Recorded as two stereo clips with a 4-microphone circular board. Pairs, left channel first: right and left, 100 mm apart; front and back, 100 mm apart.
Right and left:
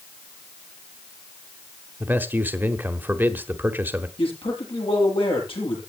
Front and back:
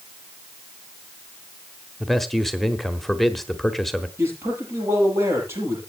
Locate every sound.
2.0 s a man speaking: 85° left, 1.1 m
4.2 s a man speaking: 115° right, 8 m